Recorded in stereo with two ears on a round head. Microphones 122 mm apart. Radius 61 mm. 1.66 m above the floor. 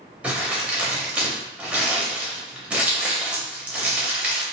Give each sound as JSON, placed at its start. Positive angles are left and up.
{"t": 0.2, "sound": "crumpling", "side_deg": -10, "distance_m": 0.8}